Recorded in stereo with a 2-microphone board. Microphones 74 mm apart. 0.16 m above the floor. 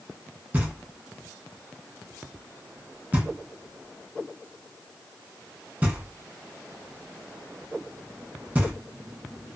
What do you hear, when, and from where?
0.5 s knocking: 20° right (ahead or behind), 0.9 m